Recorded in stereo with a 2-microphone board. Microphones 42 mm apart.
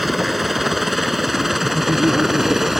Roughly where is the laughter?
Right.